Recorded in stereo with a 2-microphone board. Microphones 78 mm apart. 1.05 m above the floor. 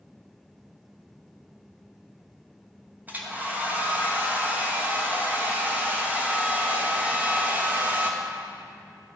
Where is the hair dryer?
20° right (ahead or behind), 1.0 m.